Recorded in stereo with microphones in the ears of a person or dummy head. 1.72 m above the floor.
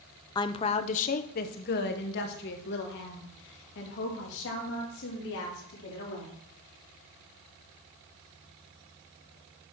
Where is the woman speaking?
20° left (ahead or behind), 0.6 m; by 6.3 s 70° left (ahead or behind), 4 m.